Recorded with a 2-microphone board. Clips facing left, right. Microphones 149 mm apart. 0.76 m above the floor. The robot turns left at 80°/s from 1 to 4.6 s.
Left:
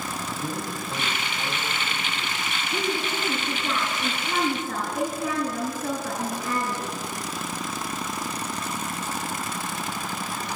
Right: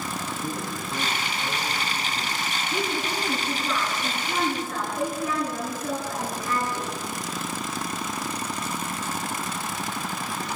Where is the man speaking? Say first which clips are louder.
Even; 60° left, 4.5 m; by 2.5 s 60° right, 4.5 m.